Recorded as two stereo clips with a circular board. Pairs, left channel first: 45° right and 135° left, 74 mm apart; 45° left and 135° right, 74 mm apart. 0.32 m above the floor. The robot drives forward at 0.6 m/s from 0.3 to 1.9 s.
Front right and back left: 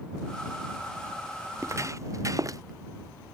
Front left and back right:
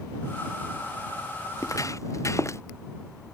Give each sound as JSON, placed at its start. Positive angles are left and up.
{"t": 1.6, "sound": "footsteps", "azimuth_deg": 85}